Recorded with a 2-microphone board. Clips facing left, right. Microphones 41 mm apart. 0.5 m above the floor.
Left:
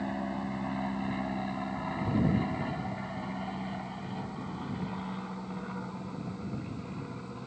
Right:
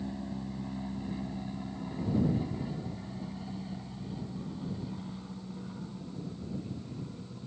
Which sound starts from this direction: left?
An aircraft, at 0.0 s.